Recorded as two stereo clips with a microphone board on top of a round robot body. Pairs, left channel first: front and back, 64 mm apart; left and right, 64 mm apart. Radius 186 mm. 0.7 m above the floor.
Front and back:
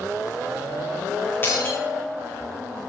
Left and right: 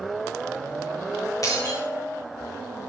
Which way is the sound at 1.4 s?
55° left.